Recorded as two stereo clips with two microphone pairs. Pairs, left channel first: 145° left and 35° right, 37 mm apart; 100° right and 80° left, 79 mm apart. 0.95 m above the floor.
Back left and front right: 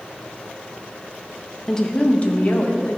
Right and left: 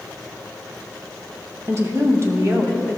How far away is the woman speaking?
About 0.9 m.